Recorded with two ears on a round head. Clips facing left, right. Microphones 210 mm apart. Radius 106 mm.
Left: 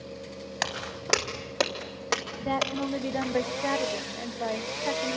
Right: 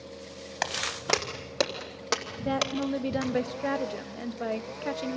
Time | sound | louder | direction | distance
0.6 | footsteps | right 2 dB | 5° left (ahead or behind) | 2.5 m
2.4 | a woman speaking | right 1 dB | 10° right (ahead or behind) | 0.8 m